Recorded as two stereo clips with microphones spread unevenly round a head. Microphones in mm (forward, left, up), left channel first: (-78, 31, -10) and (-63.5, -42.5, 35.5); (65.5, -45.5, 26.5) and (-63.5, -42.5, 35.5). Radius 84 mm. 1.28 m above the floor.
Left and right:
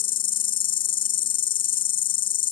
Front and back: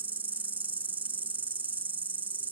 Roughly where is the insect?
Behind left.